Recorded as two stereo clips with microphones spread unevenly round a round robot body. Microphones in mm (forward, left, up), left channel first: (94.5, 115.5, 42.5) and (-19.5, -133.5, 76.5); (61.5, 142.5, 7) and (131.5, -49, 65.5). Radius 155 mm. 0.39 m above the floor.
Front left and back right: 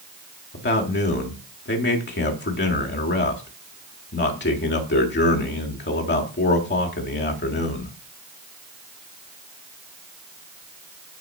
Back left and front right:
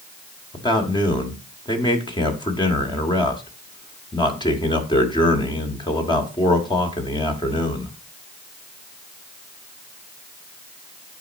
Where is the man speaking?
70° left, 1.4 m.